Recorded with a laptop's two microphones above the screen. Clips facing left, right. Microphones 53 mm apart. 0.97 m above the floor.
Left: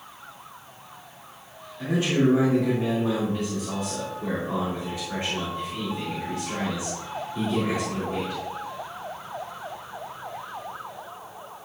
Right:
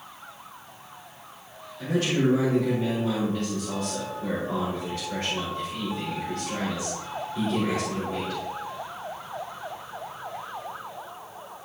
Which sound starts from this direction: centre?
A man speaking, at 1.8 s.